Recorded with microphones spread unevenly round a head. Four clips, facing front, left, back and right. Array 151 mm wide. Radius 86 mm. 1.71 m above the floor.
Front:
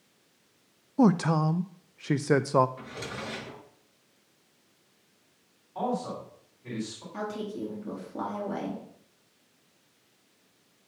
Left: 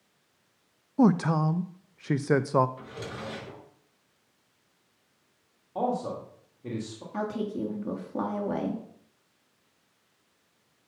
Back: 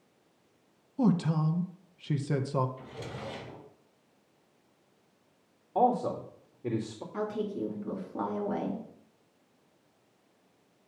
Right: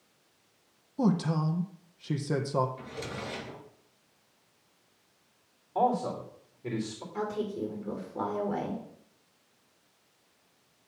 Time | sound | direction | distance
1.0 | a man speaking | 30° left | 0.5 m
2.8 | a drawer | 25° left | 5.5 m
5.8 | a man speaking | 175° left | 3 m
7.1 | a woman speaking | 90° left | 3.5 m